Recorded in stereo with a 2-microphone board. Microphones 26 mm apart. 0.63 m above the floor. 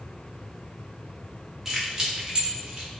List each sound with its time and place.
1.6 s keys jangling: 10° right (ahead or behind), 0.9 m; by 2.9 s 45° right (ahead or behind), 1.0 m